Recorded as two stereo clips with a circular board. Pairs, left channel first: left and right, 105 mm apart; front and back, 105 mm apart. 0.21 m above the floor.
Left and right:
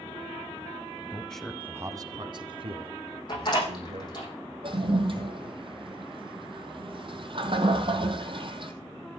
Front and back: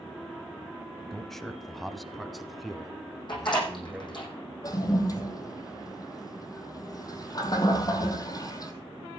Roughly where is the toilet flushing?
Ahead right.